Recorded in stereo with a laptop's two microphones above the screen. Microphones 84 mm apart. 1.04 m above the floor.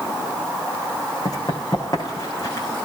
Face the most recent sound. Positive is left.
turn(degrees=40)  # may be behind; listen again after turning